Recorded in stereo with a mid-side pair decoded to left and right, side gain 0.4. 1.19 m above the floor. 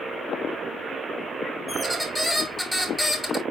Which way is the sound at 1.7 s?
Straight ahead.